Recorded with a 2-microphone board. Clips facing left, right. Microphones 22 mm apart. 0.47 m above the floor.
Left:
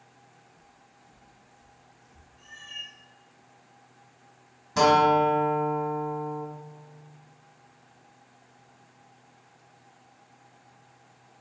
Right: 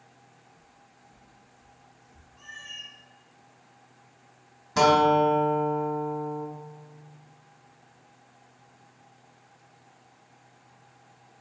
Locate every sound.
0.6 s footsteps: 65° left (ahead or behind), 1.1 m; by 2.3 s centre (ahead or behind), 0.5 m
2.4 s a cat meowing: 65° right (ahead or behind), 0.9 m
4.8 s a guitar: 10° right (ahead or behind), 0.8 m